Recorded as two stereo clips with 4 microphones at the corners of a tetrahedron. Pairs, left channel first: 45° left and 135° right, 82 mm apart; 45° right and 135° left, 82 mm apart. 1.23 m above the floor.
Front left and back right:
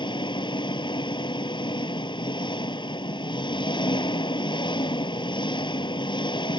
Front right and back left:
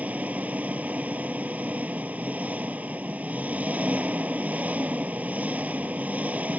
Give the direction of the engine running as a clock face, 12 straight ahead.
10 o'clock.